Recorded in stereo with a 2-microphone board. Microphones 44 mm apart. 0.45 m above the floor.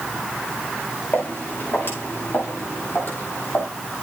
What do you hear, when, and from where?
1.1 s footsteps: 50° left (ahead or behind), 8.5 m; by 3.7 s 55° left (ahead or behind), 9.5 m